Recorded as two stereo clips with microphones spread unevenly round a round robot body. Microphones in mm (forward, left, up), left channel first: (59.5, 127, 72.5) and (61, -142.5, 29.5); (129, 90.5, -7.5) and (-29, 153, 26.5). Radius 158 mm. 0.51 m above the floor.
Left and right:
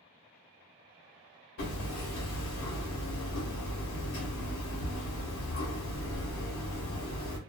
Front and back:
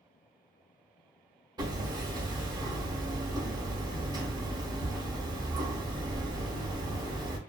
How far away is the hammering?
About 1.0 m.